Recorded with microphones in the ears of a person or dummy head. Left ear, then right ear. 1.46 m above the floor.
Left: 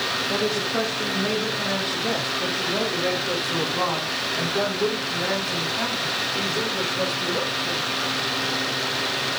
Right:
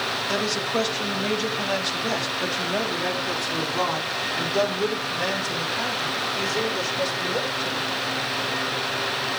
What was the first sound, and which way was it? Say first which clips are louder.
A woman speaking: left 1 dB; 60° right (ahead or behind).